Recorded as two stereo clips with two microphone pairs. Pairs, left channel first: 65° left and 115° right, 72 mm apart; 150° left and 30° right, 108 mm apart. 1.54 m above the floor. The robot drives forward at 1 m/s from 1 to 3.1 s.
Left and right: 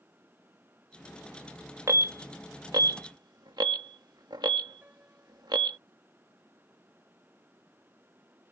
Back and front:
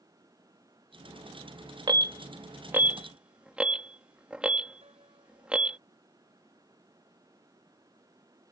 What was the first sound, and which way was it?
An alarm, 75° right.